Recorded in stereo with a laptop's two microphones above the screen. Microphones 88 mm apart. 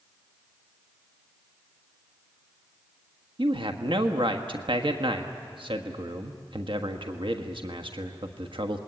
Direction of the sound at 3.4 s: 75° right (ahead or behind).